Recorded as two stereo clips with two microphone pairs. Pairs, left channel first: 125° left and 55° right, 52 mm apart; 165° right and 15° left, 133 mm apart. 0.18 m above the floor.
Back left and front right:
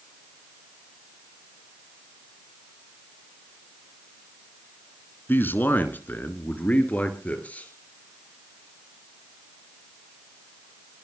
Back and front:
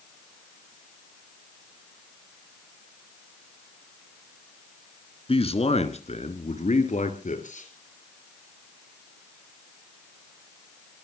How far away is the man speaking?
About 2 m.